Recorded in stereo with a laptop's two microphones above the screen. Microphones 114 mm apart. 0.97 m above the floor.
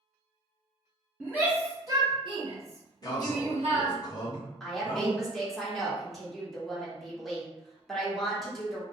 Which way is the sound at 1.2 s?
Centre (ahead or behind).